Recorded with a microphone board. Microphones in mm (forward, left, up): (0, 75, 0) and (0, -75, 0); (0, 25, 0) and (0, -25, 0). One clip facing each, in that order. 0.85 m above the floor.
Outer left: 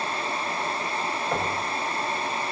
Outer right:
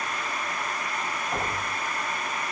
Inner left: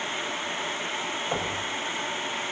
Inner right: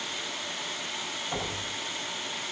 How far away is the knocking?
About 4.5 m.